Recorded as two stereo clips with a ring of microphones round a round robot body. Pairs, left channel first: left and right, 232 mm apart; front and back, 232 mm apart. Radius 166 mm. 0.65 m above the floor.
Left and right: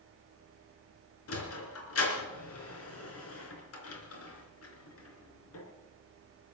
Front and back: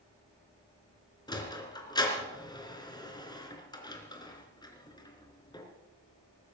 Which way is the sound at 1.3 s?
75° left.